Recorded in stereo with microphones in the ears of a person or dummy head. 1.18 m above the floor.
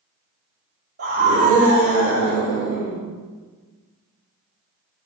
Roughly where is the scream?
Right.